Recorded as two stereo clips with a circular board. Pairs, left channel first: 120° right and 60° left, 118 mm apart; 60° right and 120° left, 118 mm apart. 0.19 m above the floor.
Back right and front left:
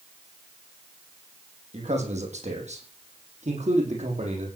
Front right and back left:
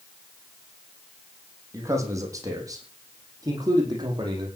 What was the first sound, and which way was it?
A man speaking, 55° left.